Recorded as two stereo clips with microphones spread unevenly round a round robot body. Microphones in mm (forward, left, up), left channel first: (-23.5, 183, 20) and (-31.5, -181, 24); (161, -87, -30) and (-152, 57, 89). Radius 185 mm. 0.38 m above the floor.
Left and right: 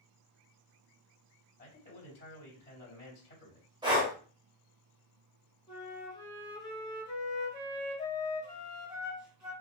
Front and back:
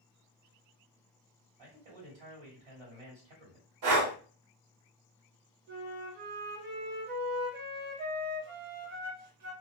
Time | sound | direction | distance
1.6 | a man speaking | 150° left | 2 m
3.8 | breathing | 170° right | 1.1 m
5.7 | a flute | 165° left | 1.5 m